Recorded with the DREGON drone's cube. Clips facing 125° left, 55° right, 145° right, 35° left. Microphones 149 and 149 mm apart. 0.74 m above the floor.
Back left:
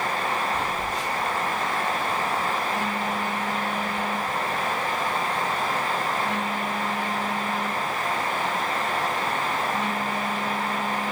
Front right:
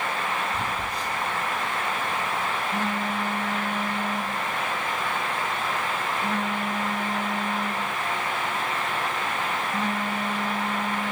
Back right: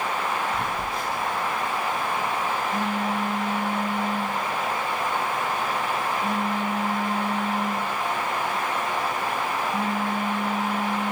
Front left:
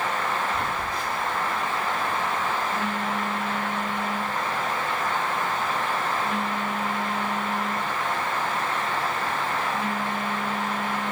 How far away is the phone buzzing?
About 4 m.